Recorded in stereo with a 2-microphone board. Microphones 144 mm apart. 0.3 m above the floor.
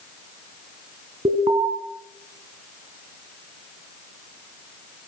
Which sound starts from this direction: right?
An alarm, at 1.2 s.